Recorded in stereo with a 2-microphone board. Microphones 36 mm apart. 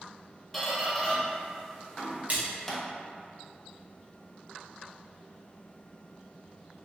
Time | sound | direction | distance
0.5 | a squeak | 5° left (ahead or behind) | 0.7 m
2.3 | a splash | 40° right (ahead or behind) | 0.7 m